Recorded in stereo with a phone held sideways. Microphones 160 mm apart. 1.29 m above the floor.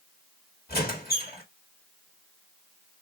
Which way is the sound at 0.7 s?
75° left (ahead or behind).